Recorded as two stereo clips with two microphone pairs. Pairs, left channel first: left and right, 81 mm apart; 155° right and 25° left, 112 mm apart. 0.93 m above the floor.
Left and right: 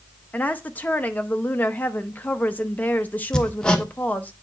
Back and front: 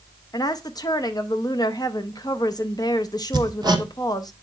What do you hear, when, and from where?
0.3 s a woman speaking: 155° left, 0.7 m
3.3 s hammering: 15° left, 0.7 m